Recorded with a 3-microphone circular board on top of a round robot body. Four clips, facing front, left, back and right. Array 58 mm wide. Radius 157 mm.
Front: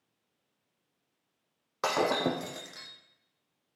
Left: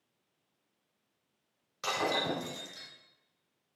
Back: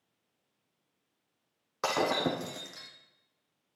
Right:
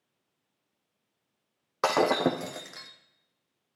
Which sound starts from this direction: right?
Breaking glass, at 1.8 s.